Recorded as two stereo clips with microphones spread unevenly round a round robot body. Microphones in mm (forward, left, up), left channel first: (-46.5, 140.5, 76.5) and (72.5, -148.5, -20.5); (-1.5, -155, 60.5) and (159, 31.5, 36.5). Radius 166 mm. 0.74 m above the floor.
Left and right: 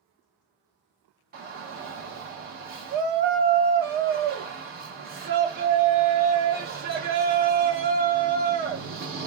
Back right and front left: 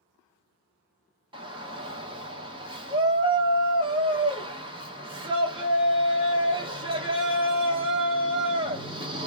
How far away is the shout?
About 1.5 m.